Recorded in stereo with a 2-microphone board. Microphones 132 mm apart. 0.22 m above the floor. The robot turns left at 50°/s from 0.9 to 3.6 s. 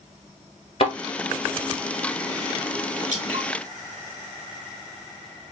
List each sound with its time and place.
0.8 s a thud: 45° left (ahead or behind), 1.3 m
3.1 s dripping: 65° right (ahead or behind), 1.8 m; by 3.5 s 60° right (ahead or behind), 1.8 m